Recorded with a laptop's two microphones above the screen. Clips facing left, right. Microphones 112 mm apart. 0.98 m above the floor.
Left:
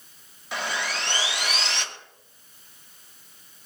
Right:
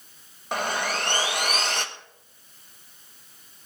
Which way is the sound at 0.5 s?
45° right (ahead or behind).